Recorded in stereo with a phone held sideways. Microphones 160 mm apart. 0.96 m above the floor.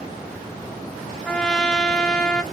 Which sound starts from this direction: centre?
A trumpet, at 1.2 s.